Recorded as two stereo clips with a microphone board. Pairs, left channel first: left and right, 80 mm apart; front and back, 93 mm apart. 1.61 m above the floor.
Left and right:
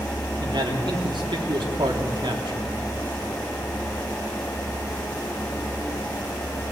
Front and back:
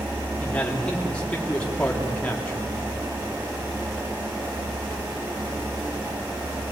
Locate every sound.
0.4 s a man speaking: 75° right, 3.5 m